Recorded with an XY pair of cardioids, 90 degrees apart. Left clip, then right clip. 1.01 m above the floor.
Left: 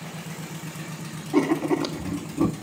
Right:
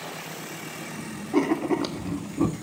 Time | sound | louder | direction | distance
1.3 | writing | left 1 dB | straight ahead | 1.8 m